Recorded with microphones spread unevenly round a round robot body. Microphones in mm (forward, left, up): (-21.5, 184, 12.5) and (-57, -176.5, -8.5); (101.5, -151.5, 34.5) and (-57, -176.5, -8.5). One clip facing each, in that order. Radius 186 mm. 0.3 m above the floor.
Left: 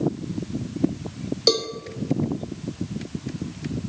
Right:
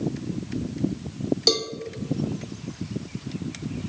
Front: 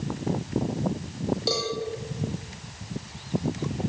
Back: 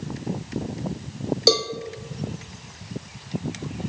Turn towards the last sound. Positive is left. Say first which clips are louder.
# left 7 dB, back 12 dB
turn(degrees=-175)